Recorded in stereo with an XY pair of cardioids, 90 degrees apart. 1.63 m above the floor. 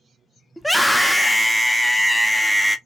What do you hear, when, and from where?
0.6 s a scream: straight ahead, 0.7 m